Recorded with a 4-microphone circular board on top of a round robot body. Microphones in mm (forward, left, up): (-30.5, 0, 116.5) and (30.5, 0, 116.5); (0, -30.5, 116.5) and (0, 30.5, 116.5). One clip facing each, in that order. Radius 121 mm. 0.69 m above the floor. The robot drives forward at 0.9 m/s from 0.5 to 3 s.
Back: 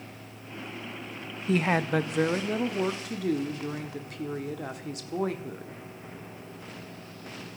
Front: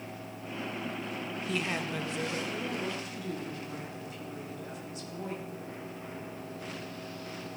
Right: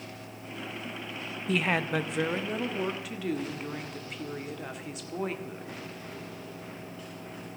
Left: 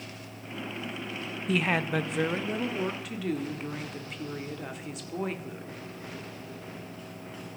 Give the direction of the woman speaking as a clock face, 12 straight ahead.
6 o'clock.